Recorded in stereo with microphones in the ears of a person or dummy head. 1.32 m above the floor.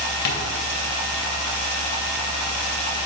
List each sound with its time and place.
0.2 s tapping: 55° left (ahead or behind), 2.5 m